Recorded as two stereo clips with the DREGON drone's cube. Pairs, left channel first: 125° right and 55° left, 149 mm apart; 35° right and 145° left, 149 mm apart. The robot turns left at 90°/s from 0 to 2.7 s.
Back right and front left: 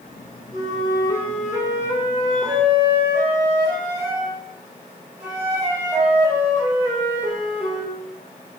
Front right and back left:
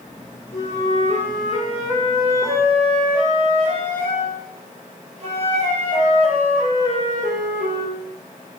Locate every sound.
0.5 s a flute: 40° right, 1.3 m; by 8.0 s 125° left, 1.3 m